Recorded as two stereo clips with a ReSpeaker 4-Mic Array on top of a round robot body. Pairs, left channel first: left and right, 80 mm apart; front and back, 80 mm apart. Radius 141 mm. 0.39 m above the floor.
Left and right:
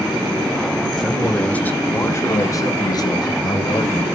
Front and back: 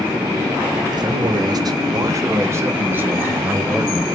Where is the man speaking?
Straight behind, 2 m; by 4.0 s 100° left, 3.5 m.